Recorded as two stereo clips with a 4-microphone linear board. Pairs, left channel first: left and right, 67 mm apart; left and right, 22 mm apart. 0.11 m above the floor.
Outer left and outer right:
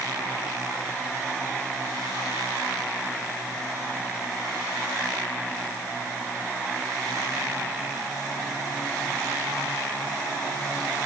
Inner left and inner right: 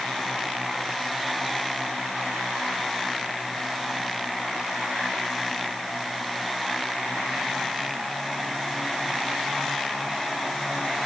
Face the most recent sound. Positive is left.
No sound to turn to.